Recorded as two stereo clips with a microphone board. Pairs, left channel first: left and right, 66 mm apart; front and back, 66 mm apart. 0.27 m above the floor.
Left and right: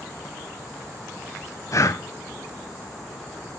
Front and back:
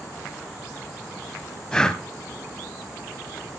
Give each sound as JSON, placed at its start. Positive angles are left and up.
{"t": 1.7, "sound": "breathing", "azimuth_deg": 75, "distance_m": 0.7}